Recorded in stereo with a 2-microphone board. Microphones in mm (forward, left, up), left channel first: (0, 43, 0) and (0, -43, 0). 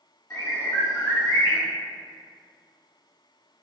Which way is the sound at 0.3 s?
35° left (ahead or behind).